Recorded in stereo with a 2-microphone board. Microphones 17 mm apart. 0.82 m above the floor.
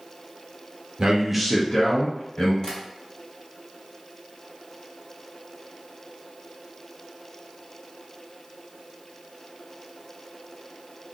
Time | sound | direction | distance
1.0 | a man speaking | 55° right (ahead or behind) | 0.8 m
2.6 | tapping | 40° left (ahead or behind) | 1.2 m